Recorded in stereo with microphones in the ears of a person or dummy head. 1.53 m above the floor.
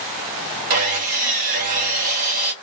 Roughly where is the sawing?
Right.